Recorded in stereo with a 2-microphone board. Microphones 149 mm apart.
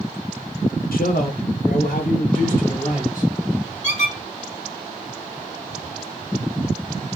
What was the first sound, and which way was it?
A man speaking, 85° left.